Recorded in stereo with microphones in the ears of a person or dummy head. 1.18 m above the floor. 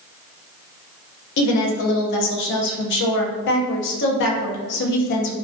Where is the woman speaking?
60° left (ahead or behind), 0.5 m.